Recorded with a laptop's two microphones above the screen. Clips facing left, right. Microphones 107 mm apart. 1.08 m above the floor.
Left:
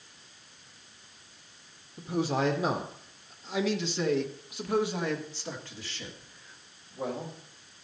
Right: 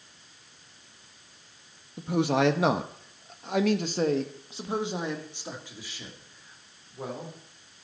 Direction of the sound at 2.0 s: 65° right (ahead or behind).